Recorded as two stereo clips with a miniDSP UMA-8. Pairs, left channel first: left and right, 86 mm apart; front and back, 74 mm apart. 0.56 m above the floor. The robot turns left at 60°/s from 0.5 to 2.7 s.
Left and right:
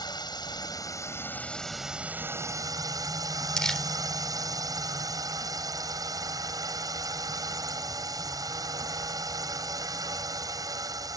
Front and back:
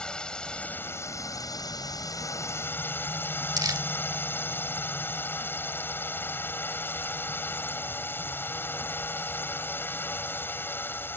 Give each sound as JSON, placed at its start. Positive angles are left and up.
{"t": 0.0, "sound": "a drone", "azimuth_deg": 75}
{"t": 3.6, "sound": "crumpling", "azimuth_deg": 170}